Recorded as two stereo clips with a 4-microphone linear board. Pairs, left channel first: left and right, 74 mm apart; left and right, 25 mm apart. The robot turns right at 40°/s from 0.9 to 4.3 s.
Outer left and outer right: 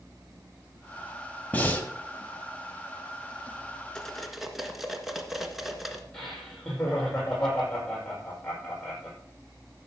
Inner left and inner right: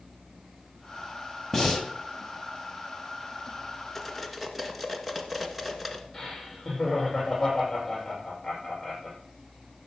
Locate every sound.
1.5 s breathing: 20° left (ahead or behind), 1.6 m
4.0 s cutlery clinking: 10° left (ahead or behind), 1.5 m; by 6.0 s 5° right (ahead or behind), 1.5 m
6.1 s laughter: 5° left (ahead or behind), 7 m